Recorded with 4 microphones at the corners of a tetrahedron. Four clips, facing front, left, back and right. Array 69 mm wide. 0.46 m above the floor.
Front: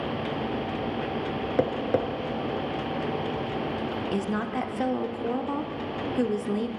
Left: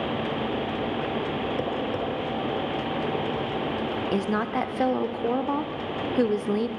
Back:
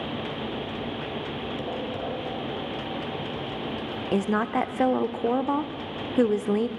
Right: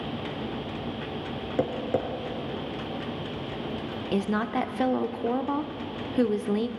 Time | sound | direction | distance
1.6 | tapping | 15° right | 2.5 m
4.1 | a woman speaking | 160° left | 0.7 m